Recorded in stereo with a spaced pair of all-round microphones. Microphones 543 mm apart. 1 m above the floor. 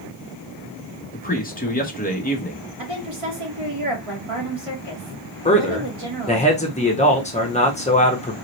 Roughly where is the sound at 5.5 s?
Centre.